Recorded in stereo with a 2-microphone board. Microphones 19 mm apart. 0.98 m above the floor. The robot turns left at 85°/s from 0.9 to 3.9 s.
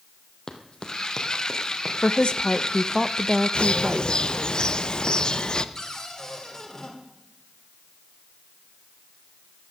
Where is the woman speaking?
90° left, 0.6 m; by 4.2 s 70° right, 0.6 m.